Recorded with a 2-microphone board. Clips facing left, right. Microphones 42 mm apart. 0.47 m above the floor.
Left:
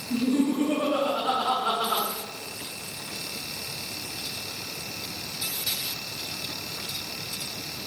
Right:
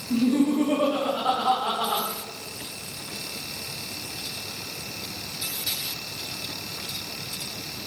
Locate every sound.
0.1 s laughter: 65° right (ahead or behind), 3 m; by 2.0 s 70° right (ahead or behind), 4 m